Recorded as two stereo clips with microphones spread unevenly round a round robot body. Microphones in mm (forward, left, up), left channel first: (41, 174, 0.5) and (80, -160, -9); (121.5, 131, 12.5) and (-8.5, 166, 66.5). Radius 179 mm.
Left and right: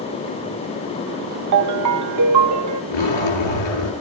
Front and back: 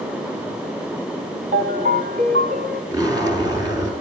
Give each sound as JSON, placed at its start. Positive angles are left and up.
{"t": 1.5, "sound": "a ringtone", "azimuth_deg": -130, "distance_m": 0.7}
{"t": 2.9, "sound": "a zipper", "azimuth_deg": 105, "distance_m": 7.0}